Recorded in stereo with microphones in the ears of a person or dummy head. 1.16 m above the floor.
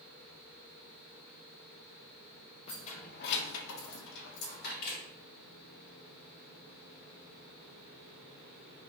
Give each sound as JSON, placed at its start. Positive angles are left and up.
{"t": 2.7, "sound": "keys jangling", "side_deg": 35, "distance_m": 0.8}
{"t": 4.8, "sound": "a camera shutter", "side_deg": 50, "distance_m": 1.5}